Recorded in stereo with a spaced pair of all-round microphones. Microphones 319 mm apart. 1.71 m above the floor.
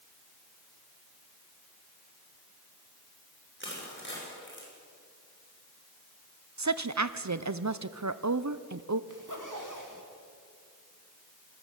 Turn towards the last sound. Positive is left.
turn(degrees=-70)  # may be behind; listen again after turning